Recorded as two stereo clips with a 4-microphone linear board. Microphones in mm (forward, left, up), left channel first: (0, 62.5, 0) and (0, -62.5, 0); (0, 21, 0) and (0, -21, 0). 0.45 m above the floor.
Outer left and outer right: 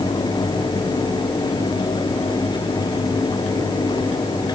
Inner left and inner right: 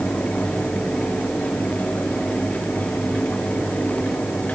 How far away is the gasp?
No gasp in this recording.